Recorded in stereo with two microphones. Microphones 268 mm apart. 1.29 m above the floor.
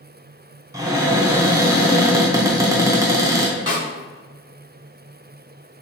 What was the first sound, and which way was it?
A cupboard door, 10° right (ahead or behind).